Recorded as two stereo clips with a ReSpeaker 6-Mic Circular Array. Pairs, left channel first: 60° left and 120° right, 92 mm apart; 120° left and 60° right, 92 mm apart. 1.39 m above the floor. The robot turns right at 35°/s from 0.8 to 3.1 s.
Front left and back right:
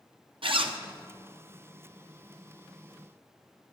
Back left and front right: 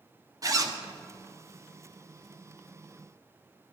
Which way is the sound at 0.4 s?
110° right.